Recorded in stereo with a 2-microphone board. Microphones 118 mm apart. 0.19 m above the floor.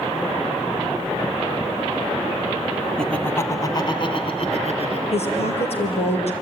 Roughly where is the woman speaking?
Left.